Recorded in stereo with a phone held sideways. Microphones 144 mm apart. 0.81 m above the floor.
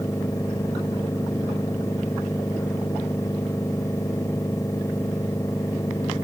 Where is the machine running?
20° left (ahead or behind).